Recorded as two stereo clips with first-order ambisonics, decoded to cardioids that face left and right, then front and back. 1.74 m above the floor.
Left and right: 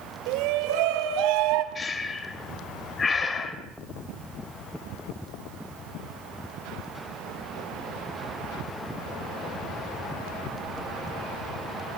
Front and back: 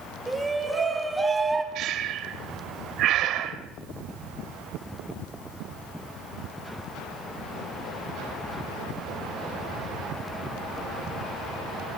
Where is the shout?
95° right, 4 m; by 1.6 s 100° right, 3 m.